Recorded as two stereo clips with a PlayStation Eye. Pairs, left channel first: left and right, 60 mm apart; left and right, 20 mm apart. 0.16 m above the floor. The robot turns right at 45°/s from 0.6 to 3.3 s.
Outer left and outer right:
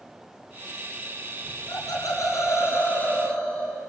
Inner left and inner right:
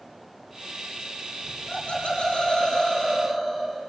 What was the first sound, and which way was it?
Laughter, 85° left.